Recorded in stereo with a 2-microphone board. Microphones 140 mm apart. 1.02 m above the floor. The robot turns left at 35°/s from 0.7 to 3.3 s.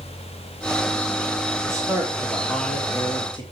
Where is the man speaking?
155° right, 3 m; by 3.4 s 145° left, 3 m.